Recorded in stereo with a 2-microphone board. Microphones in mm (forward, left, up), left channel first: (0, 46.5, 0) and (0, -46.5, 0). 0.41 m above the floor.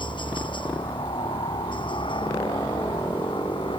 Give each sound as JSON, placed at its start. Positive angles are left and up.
{"t": 0.0, "sound": "a helicopter", "side_deg": 65}